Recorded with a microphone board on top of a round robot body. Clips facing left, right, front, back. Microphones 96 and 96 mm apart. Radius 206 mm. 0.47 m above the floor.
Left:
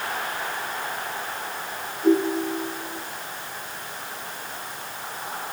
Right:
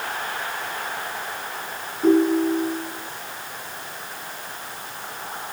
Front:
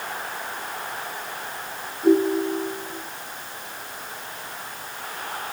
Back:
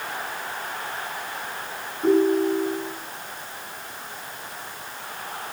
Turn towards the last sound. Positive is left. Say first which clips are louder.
# right 4 dB, even
turn(degrees=-130)